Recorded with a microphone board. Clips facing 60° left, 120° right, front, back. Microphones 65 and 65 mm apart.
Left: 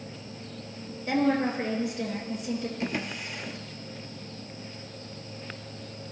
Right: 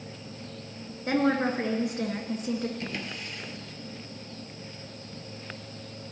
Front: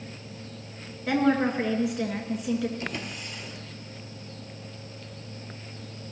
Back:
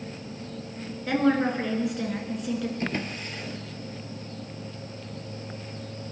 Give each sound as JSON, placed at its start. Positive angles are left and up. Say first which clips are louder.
{"t": 1.1, "sound": "a woman speaking", "louder": "even, even", "azimuth_deg": -85, "distance_m": 2.5}
{"t": 2.8, "sound": "a drawer", "louder": "left 4 dB, back 4 dB", "azimuth_deg": 130, "distance_m": 1.1}